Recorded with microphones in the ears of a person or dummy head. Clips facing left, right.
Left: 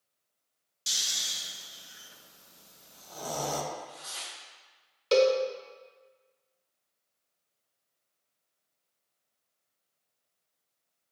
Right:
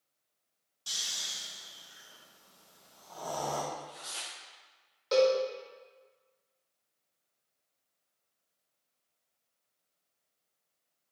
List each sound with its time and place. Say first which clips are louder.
0.9 s snoring: left 2 dB; 25° left (ahead or behind), 0.5 m
3.7 s tearing paper: left 1 dB; 20° right (ahead or behind), 0.7 m
5.1 s a cowbell: left 2 dB; 35° left (ahead or behind), 0.5 m